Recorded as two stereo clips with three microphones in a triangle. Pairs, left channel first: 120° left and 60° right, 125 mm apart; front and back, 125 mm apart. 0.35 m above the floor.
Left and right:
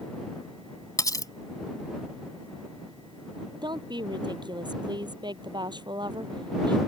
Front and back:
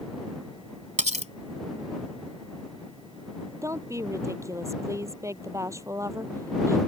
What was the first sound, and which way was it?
Cutlery clinking, straight behind.